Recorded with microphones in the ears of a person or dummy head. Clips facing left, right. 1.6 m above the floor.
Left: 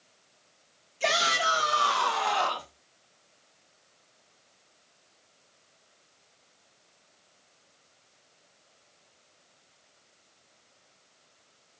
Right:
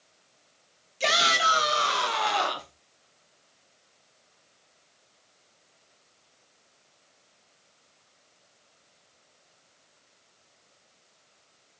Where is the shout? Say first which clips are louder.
Right 1 dB; 50° right (ahead or behind), 3 m; by 2.7 s 30° right (ahead or behind), 2 m.